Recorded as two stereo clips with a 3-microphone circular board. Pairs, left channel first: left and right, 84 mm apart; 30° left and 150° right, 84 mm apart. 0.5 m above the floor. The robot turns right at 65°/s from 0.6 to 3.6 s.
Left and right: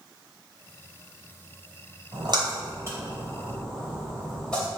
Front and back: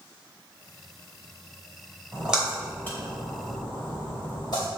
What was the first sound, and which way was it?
A splash, 85° right.